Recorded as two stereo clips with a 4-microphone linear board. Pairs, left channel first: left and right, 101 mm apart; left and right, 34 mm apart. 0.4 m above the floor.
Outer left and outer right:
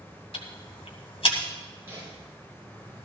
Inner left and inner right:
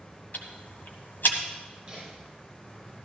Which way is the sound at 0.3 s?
70° left (ahead or behind).